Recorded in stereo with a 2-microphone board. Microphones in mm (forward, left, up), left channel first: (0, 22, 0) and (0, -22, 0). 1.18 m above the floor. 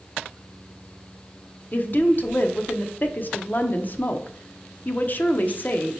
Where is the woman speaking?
40° left (ahead or behind), 0.6 m.